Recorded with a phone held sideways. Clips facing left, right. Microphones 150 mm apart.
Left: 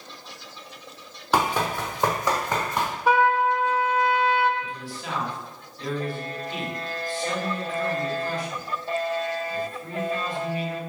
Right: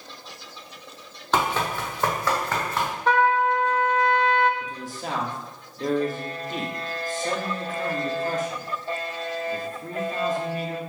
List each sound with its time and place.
1.3 s running footsteps: 10° left (ahead or behind), 1.6 m; by 2.9 s 20° left (ahead or behind), 2.5 m
3.1 s a trumpet: 10° left (ahead or behind), 0.8 m
4.6 s a man speaking: 45° right (ahead or behind), 1.9 m